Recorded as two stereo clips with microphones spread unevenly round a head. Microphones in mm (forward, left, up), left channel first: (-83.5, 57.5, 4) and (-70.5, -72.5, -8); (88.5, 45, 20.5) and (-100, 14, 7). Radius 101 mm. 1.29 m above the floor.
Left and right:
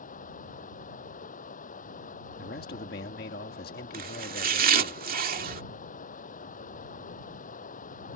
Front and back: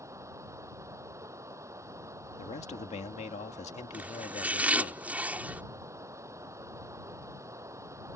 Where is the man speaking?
65° left.